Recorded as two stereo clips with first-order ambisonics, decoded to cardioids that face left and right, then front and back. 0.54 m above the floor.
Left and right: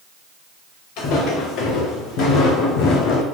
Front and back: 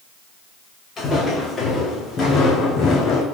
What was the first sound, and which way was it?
Footsteps, 70° left.